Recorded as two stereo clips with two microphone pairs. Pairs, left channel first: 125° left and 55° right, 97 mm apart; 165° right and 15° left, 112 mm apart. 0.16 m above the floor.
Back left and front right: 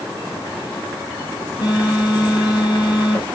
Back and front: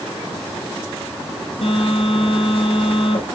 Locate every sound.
1.6 s a phone buzzing: 165° left, 6.5 m